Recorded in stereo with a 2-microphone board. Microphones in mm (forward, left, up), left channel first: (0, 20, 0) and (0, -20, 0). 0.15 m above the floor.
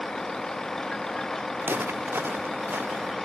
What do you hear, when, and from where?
0.0 s a vehicle: 15° left (ahead or behind); by 3.2 s 5° left (ahead or behind)
1.6 s footsteps: 70° right (ahead or behind); by 3.1 s 80° right